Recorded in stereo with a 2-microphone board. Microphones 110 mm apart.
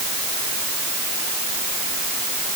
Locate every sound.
Only background noise.